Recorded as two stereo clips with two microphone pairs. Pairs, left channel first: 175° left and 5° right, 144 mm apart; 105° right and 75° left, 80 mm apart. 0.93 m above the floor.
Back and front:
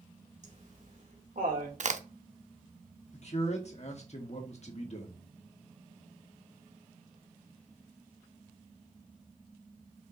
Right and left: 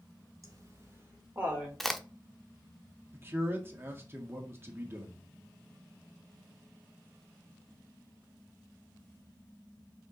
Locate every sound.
0.4 s laughter: 30° left, 3 m; by 1.7 s 5° left, 3 m
1.8 s a crack: 10° right, 0.7 m
3.1 s a man speaking: 135° left, 1.8 m